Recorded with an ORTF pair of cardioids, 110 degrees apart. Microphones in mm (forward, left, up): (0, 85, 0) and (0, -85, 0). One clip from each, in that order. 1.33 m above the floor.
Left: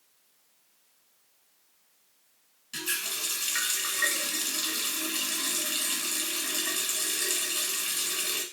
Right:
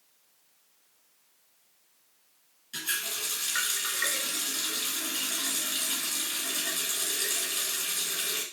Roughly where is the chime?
I don't hear a chime.